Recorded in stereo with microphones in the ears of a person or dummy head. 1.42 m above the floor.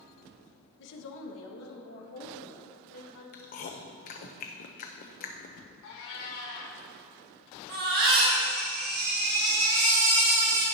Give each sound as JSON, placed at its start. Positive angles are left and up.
{"t": 0.8, "sound": "a woman speaking", "side_deg": 65, "distance_m": 1.0}
{"t": 3.3, "sound": "chewing", "side_deg": 40, "distance_m": 0.6}
{"t": 5.8, "sound": "a cat meowing", "side_deg": 60, "distance_m": 1.9}
{"t": 7.7, "sound": "a baby crying", "side_deg": -70, "distance_m": 3.5}